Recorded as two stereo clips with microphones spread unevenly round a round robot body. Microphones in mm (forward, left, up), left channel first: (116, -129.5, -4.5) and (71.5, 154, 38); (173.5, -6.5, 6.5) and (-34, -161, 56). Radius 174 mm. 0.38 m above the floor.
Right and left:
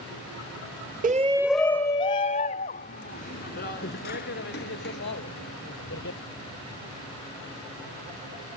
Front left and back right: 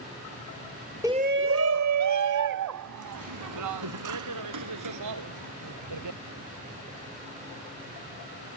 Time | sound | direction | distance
1.0 | a shout | 130° left | ?